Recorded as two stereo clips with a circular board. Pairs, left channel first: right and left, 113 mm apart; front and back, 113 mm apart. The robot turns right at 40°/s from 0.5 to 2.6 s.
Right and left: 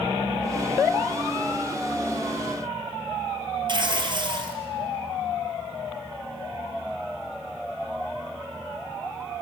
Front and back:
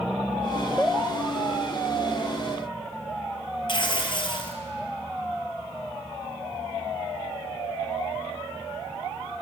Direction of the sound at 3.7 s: 45° left.